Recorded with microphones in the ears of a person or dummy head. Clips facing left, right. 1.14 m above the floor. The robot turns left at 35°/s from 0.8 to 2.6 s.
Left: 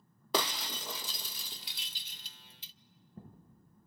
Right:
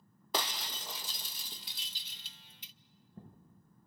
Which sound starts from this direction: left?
Breaking glass, at 0.3 s.